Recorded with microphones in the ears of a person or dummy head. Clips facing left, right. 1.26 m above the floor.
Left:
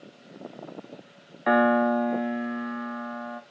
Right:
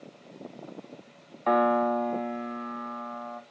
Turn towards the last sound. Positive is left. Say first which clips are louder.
# left 3 dB
turn(degrees=15)  # may be behind; listen again after turning